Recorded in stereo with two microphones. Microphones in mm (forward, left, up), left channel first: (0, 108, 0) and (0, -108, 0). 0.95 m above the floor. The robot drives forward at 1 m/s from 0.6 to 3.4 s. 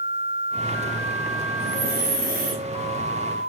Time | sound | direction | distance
1.6 | breathing | 60° left (ahead or behind) | 2.5 m